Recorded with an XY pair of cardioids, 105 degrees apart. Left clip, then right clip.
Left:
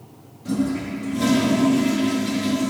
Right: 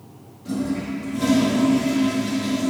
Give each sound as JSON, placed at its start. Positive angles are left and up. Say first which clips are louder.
{"t": 0.5, "sound": "a toilet flushing", "louder": "left 2 dB", "azimuth_deg": 25, "distance_m": 2.0}